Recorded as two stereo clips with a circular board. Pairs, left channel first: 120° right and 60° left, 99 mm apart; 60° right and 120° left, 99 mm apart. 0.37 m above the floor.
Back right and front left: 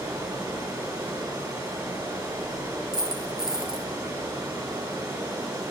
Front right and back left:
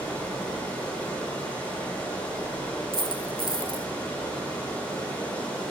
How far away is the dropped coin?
About 0.8 m.